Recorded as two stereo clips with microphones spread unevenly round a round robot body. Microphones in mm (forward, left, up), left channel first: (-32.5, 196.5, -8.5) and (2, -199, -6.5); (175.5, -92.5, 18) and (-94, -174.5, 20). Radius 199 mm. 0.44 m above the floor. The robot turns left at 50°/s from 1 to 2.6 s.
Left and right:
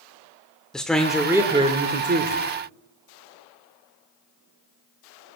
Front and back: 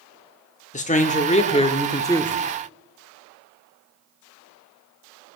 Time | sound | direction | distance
0.7 | a man speaking | 10° left | 0.8 m